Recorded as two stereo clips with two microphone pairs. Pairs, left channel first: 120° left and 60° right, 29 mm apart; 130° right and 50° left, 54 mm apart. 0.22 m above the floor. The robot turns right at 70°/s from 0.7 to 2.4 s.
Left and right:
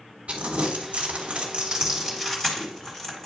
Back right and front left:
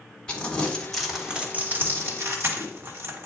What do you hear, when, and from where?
0.3 s crumpling: 65° right, 1.9 m; by 3.3 s 55° left, 1.9 m